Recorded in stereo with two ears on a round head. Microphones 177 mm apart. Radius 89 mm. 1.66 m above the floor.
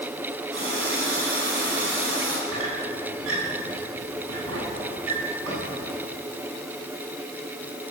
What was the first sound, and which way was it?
A running tap, 75° right (ahead or behind).